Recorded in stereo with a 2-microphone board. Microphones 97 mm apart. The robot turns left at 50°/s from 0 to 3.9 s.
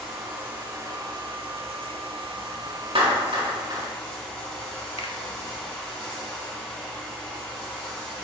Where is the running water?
Straight ahead, 3.5 m; by 8.2 s 165° left, 3.5 m.